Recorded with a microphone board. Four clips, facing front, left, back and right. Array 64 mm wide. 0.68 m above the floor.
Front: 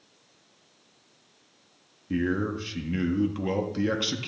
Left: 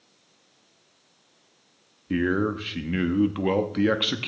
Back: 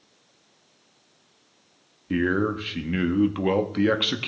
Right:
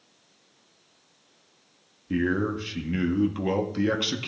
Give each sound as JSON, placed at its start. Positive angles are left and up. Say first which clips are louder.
{"t": 2.1, "sound": "a man speaking", "louder": "left 2 dB, back 4 dB", "azimuth_deg": 145, "distance_m": 0.9}